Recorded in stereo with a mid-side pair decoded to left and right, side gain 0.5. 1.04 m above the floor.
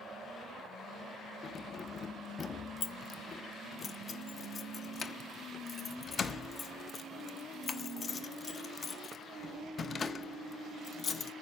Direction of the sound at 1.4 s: 40° left.